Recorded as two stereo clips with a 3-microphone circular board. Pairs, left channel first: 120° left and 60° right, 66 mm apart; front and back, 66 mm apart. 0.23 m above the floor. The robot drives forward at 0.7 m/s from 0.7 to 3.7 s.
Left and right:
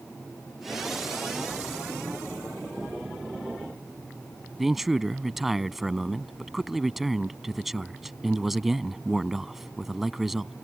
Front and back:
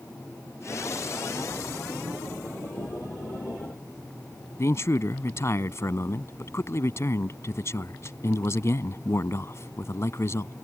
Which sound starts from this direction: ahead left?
A man speaking, at 4.6 s.